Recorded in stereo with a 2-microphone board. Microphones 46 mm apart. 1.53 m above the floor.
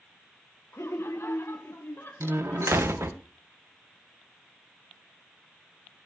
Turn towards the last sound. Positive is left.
turn(degrees=-65)  # may be behind; listen again after turning